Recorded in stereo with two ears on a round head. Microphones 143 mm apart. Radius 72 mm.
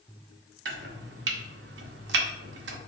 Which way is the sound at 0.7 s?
75° right (ahead or behind).